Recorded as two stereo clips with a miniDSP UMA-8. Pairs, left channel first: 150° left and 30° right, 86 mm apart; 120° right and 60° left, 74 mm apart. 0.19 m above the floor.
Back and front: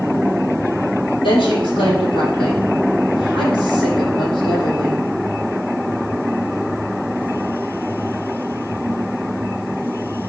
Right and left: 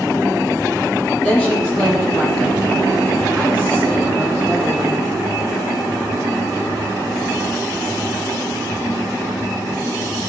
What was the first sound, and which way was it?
A woman speaking, 160° left.